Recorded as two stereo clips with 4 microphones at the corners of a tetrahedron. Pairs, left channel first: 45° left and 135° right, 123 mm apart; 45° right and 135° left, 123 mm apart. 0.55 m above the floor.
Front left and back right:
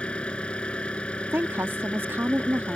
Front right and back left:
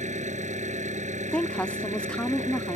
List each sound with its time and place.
0.0 s an engine running: 125° left
1.3 s a woman speaking: 105° right